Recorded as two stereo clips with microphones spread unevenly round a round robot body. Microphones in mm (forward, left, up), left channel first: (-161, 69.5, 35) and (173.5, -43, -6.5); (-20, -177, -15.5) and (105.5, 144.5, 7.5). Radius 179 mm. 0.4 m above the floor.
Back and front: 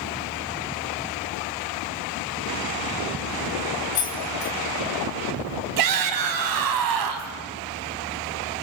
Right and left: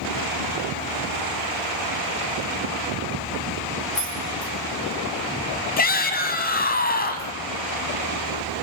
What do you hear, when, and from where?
4.0 s keys jangling: 160° left, 3 m
5.8 s a shout: 45° right, 2.5 m